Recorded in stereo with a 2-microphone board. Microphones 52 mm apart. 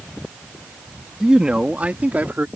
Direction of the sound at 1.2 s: 10° right (ahead or behind).